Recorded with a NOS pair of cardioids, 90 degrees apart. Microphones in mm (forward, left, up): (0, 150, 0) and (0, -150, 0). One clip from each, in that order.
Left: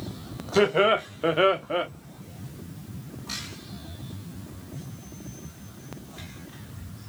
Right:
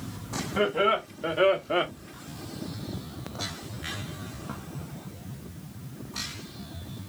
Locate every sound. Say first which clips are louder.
0.6 s laughter: left 4 dB; 55° left, 1.8 m; by 1.9 s 35° right, 0.7 m